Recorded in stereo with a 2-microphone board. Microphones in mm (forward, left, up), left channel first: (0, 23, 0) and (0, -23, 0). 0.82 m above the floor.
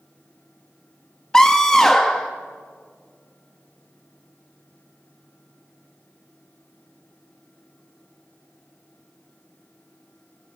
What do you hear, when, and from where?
1.3 s a scream: 10° left (ahead or behind), 1.0 m